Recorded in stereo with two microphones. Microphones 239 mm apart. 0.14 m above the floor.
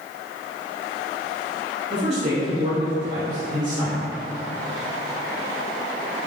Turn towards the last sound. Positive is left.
turn(degrees=-30)  # may be behind; listen again after turning